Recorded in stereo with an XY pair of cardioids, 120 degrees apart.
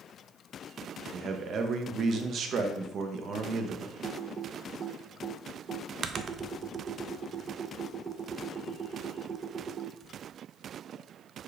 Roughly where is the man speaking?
Ahead right.